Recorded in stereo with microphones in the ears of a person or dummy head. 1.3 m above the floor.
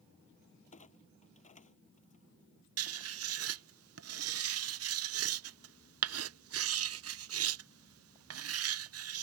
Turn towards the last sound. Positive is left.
turn(degrees=-65)  # may be behind; listen again after turning